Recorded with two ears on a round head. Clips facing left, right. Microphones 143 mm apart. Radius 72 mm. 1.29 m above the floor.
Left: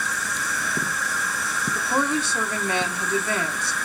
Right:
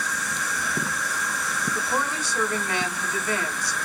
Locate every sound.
0.0 s an insect: centre (ahead or behind), 0.9 m
1.8 s a woman speaking: 25° left (ahead or behind), 1.1 m